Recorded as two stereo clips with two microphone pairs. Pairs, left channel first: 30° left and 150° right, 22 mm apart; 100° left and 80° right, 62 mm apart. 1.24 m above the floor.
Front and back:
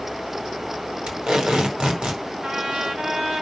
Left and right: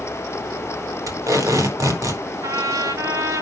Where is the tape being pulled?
100° right, 4.5 m.